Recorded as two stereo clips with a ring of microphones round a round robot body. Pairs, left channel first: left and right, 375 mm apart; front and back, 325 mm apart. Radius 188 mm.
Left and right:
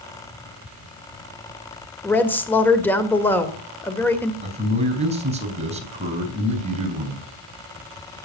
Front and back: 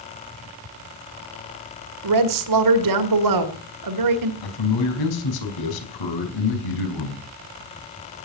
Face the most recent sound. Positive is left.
turn(degrees=-15)